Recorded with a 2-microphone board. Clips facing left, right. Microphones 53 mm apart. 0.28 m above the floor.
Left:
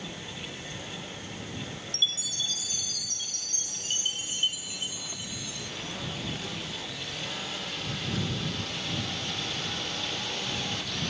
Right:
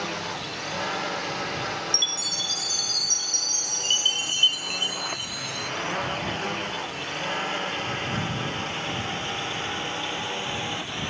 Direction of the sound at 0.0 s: 85° right.